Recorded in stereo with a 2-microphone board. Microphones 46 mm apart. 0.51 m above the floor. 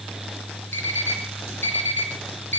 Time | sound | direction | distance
0.7 | an alarm clock | 45° left (ahead or behind) | 3 m